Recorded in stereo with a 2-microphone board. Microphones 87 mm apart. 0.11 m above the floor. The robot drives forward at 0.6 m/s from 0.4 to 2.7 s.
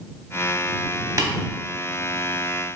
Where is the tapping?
40° right (ahead or behind), 0.7 m.